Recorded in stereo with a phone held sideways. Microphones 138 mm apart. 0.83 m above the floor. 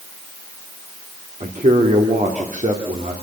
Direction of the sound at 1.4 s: 65° right (ahead or behind).